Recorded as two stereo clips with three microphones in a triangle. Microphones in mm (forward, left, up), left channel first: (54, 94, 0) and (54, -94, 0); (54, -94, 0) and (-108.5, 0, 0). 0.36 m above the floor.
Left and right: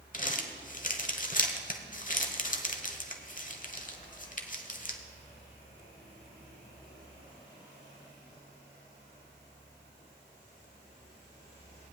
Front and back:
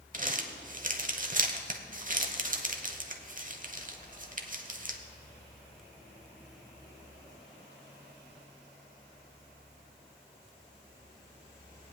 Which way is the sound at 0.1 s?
120° left.